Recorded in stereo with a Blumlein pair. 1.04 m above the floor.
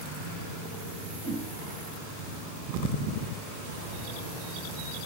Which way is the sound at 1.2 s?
55° right.